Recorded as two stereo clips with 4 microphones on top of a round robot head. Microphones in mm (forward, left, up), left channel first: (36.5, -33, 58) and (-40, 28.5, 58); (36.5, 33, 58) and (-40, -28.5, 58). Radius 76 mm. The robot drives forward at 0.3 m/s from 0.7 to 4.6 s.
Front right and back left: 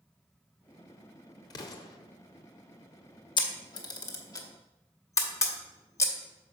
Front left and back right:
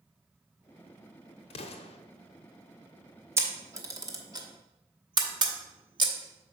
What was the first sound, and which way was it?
An explosion, 15° left.